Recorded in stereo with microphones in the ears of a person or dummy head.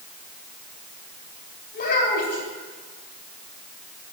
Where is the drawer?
No drawer in this recording.